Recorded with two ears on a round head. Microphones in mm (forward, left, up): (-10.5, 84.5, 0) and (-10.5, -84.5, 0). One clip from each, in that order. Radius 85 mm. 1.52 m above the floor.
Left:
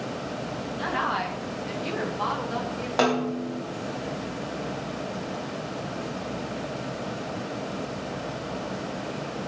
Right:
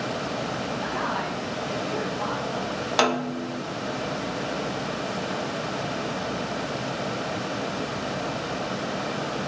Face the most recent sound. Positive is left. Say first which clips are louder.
# even
turn(degrees=-60)  # may be behind; listen again after turning